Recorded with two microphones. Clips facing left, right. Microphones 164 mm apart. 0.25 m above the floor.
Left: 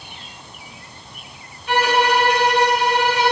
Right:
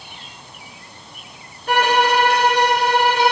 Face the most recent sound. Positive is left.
turn(degrees=-45)  # may be behind; listen again after turning